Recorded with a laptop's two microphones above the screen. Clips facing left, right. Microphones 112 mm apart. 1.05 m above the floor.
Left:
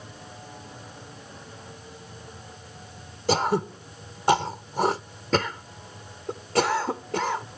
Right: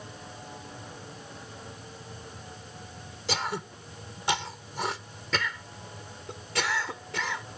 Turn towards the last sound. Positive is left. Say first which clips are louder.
# left 9 dB
turn(degrees=45)  # may be behind; listen again after turning